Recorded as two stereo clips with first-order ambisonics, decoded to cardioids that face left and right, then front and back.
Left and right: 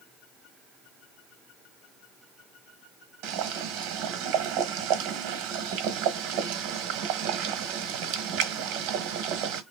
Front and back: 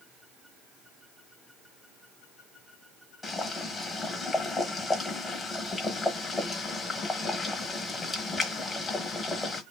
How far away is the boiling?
About 1.1 m.